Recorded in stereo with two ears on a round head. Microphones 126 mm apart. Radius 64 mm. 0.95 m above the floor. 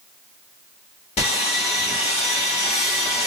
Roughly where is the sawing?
Left.